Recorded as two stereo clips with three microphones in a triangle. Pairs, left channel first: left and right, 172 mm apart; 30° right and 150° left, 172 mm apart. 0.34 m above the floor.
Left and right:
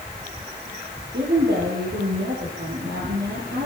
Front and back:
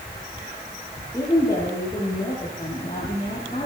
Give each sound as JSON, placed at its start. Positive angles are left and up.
{"t": 1.1, "sound": "a woman speaking", "azimuth_deg": -100, "distance_m": 8.0}